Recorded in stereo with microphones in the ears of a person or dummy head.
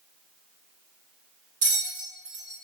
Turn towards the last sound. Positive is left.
turn(degrees=-45)  # may be behind; listen again after turning